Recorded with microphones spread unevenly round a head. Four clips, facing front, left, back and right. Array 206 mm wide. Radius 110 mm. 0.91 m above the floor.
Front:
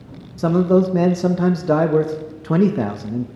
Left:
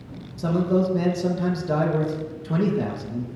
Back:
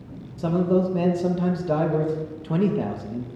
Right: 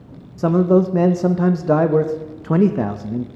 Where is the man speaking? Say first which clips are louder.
Right 7 dB, front 6 dB; 45° right, 0.7 m.